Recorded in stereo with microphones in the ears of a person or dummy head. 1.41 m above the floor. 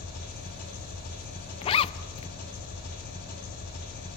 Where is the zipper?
25° left (ahead or behind), 0.5 m.